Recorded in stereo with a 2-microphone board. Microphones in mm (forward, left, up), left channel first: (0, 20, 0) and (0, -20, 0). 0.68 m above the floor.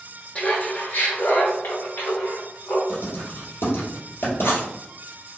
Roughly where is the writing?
Left.